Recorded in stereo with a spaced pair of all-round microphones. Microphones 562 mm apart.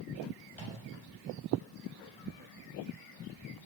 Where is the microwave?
55° left (ahead or behind), 7.5 m.